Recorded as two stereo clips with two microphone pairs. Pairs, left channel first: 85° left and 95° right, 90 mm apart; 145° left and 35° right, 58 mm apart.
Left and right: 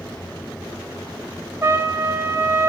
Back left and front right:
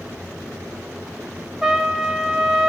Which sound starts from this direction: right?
A trumpet, at 1.6 s.